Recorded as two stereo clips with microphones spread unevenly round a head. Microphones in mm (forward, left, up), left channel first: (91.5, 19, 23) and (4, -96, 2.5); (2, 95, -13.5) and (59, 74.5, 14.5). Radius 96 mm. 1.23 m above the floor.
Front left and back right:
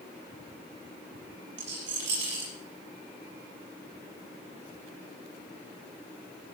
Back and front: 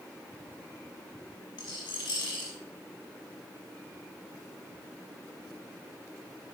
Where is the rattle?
165° right, 6.5 m.